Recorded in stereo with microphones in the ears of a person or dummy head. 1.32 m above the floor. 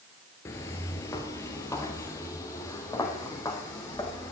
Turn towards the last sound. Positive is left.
turn(degrees=15)  # may be behind; listen again after turning